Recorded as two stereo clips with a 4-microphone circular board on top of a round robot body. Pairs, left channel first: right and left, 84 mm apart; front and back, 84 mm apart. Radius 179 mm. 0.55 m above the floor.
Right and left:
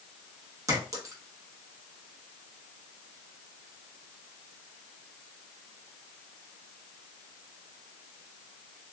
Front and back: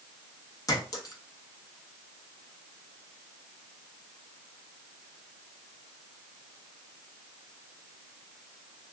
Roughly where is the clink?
Ahead left.